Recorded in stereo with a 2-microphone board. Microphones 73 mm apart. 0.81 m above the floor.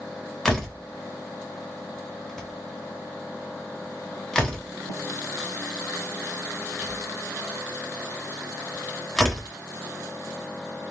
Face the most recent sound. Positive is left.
turn(degrees=10)  # may be behind; listen again after turning